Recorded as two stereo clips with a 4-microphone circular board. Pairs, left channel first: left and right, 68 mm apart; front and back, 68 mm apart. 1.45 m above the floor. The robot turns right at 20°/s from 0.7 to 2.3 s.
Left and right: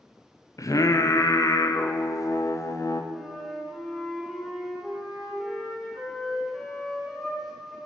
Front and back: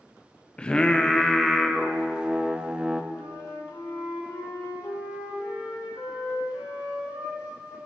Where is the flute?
Straight ahead, 2 m.